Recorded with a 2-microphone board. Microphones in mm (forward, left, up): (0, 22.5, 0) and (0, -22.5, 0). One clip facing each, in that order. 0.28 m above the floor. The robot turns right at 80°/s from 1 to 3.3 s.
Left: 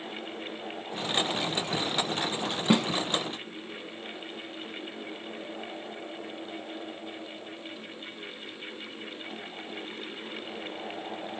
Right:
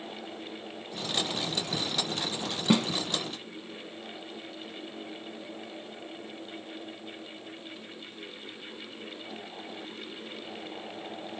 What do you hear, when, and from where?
2.7 s a snare drum: 10° left (ahead or behind), 0.8 m; by 2.9 s 5° right (ahead or behind), 0.8 m